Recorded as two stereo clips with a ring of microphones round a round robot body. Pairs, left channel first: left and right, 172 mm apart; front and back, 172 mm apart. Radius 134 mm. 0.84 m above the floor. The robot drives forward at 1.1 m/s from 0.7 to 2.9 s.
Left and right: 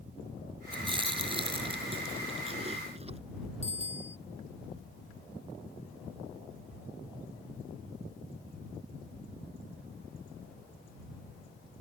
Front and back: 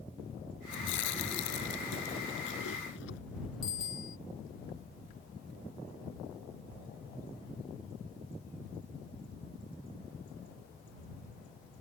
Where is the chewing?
30° right; by 3.2 s 35° right.